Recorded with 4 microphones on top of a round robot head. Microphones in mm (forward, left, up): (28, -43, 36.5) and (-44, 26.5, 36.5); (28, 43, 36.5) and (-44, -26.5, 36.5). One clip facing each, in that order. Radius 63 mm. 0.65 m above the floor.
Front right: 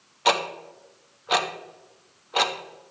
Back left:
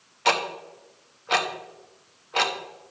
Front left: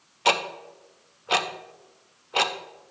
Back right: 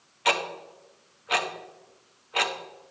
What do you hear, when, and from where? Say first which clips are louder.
0.2 s ticking: front right 1 dB, front left 3 dB; 25° left, 0.6 m